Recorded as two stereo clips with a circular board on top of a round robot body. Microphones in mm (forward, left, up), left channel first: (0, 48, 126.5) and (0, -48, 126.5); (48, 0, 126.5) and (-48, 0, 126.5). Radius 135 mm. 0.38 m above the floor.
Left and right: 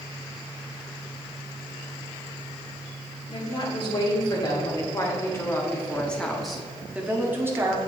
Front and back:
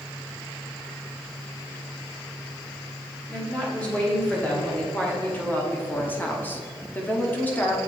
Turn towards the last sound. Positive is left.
turn(degrees=-60)